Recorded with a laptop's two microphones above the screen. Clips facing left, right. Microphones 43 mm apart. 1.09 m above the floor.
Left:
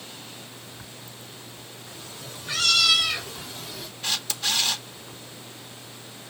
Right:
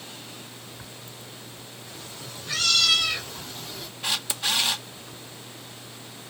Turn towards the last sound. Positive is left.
turn(degrees=-15)  # may be behind; listen again after turning